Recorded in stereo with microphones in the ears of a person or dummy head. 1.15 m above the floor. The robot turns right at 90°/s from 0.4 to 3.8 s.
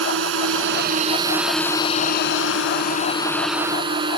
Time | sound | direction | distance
0.0 | a drone | 100° right | ?